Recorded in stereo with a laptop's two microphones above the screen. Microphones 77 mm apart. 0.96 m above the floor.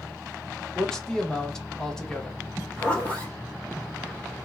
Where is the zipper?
15° left (ahead or behind), 1.9 m.